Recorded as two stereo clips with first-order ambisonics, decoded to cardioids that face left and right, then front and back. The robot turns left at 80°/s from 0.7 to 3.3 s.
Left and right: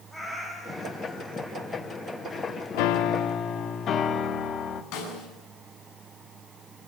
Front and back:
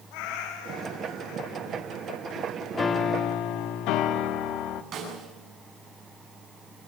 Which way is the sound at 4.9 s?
120° left.